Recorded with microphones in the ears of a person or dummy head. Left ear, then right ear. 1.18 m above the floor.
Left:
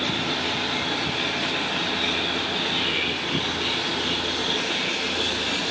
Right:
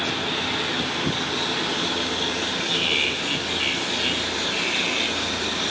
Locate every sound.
2.7 s laughter: 45° right (ahead or behind), 9.5 m; by 5.3 s 60° right (ahead or behind), 8.5 m